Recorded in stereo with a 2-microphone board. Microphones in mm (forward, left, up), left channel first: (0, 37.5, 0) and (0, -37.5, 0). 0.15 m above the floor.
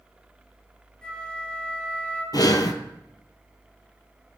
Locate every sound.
1.0 s a flute: 10° left (ahead or behind), 1.6 m
2.3 s breathing: 60° left (ahead or behind), 0.5 m